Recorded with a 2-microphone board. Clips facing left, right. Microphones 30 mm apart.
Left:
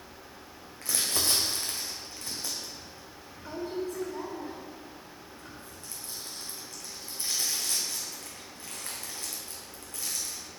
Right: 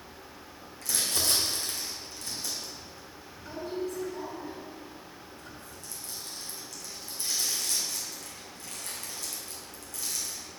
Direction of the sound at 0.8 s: 35° left (ahead or behind).